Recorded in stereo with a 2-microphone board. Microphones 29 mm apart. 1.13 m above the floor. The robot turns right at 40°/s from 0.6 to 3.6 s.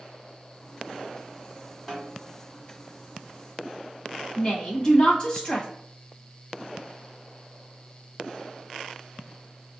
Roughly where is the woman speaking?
Left.